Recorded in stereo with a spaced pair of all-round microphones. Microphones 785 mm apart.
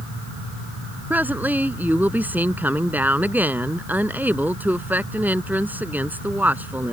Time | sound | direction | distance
1.1 | a woman speaking | centre (ahead or behind) | ?